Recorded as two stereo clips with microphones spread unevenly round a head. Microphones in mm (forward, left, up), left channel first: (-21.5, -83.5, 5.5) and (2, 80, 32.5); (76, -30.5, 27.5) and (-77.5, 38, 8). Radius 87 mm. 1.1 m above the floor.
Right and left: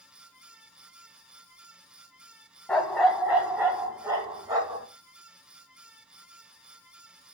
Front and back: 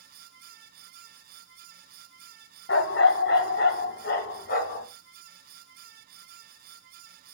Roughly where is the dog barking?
Ahead.